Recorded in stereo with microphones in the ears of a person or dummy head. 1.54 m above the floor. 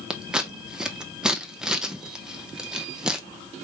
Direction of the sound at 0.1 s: 5° right (ahead or behind).